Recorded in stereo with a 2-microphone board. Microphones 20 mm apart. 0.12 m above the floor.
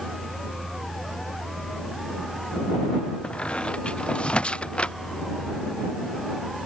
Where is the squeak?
60° left (ahead or behind).